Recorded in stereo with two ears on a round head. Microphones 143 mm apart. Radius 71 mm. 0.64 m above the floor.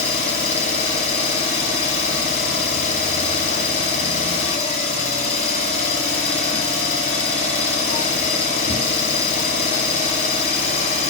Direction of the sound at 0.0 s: 45° left (ahead or behind).